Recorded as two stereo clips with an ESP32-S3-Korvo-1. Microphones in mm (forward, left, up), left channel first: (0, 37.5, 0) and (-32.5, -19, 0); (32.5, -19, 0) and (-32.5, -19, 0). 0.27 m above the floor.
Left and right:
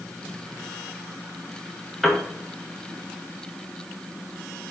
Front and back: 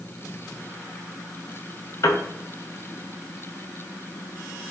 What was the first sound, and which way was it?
A piano, 25° right.